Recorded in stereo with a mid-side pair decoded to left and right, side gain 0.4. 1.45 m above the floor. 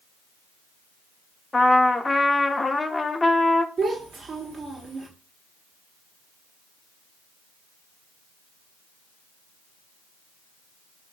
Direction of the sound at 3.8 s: 55° right.